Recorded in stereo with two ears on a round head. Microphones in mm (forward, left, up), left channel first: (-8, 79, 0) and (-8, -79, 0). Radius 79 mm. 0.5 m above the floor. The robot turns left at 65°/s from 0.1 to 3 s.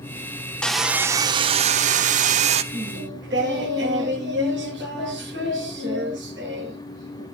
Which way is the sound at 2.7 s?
50° right (ahead or behind).